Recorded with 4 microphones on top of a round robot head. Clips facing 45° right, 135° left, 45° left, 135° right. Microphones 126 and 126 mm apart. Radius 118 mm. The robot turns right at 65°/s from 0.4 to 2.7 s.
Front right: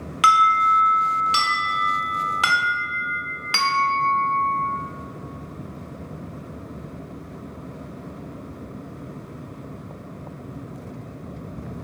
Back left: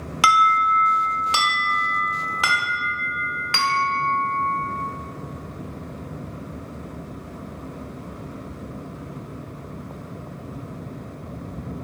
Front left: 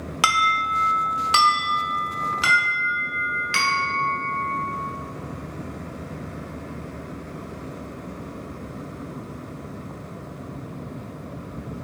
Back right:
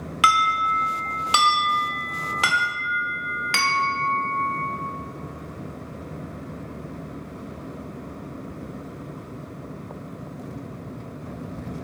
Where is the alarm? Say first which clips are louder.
Even, back right 2 dB; 90° left, 0.9 m; by 4.6 s 120° right, 0.9 m.